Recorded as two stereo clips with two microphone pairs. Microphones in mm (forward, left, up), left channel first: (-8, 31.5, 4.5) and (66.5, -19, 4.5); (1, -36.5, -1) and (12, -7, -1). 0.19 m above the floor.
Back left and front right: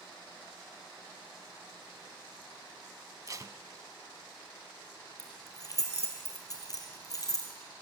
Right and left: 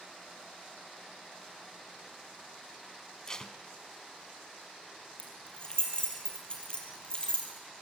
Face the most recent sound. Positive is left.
turn(degrees=-170)